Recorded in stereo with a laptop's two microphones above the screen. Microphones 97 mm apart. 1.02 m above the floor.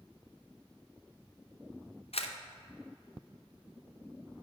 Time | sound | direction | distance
2.1 | a camera shutter | 75° left (ahead or behind) | 0.6 m